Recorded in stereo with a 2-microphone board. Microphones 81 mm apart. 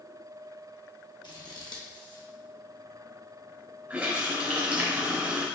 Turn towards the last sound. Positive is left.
turn(degrees=-15)  # may be behind; listen again after turning